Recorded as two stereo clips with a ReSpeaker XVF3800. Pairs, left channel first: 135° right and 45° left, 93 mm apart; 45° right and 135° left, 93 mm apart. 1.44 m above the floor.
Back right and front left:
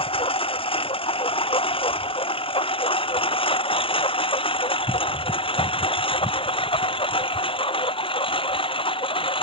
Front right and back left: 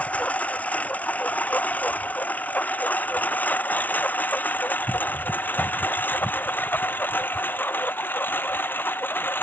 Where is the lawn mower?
120° right; by 9.4 s 115° right.